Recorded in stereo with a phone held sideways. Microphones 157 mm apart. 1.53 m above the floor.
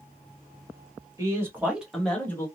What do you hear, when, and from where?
1.2 s a man speaking: 20° right (ahead or behind), 1.4 m; by 2.5 s 20° left (ahead or behind), 1.0 m